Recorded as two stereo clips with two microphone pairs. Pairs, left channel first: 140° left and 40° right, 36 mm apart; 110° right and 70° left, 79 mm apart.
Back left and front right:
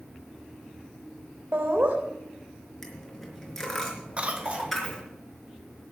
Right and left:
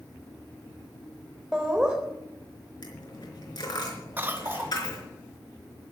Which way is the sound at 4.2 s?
10° left.